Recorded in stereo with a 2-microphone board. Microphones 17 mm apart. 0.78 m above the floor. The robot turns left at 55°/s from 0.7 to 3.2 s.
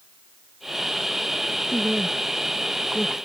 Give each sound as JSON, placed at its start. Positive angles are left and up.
{"t": 1.7, "sound": "a woman speaking", "side_deg": -65}